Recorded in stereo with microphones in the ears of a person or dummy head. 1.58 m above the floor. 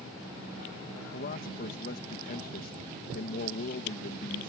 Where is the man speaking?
45° left (ahead or behind).